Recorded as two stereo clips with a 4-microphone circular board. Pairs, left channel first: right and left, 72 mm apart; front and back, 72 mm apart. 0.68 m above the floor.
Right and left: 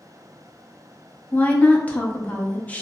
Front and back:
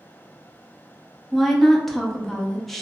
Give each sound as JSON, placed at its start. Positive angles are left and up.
{"t": 1.3, "sound": "a woman speaking", "azimuth_deg": -80, "distance_m": 0.5}